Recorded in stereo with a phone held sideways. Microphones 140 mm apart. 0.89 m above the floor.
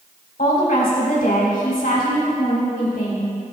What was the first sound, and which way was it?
A woman speaking, 80° left.